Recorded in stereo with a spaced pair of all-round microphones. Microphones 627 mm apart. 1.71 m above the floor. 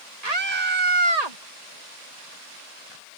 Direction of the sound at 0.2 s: 80° right.